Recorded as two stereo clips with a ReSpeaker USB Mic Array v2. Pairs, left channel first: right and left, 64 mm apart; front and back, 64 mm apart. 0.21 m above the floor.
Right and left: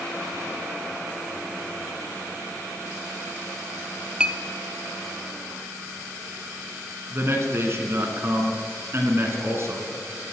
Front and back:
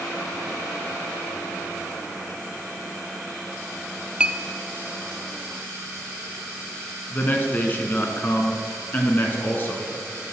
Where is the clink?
140° left, 0.6 m.